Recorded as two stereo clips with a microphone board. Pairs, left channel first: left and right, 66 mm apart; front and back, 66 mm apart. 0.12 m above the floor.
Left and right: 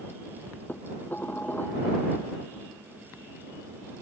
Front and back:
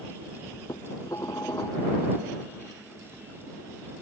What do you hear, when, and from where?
0.7 s dishes clattering: 30° left